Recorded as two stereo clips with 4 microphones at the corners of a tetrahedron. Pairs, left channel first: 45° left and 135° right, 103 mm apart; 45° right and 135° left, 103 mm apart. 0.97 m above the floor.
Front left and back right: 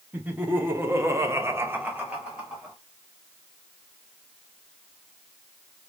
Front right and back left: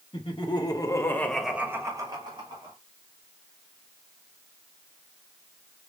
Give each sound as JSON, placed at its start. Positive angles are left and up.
{"t": 0.1, "sound": "laughter", "azimuth_deg": -65, "distance_m": 1.7}